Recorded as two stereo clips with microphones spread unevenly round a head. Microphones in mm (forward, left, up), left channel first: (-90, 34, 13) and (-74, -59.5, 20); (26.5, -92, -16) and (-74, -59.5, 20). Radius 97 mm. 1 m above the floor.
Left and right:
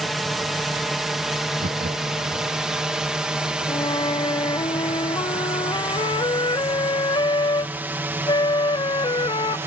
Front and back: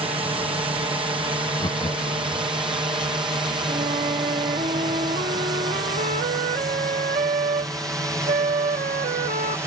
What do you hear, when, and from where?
0.0 s a drone: 170° right; by 9.7 s 125° right
1.6 s laughter: 65° right
3.7 s a flute: 140° left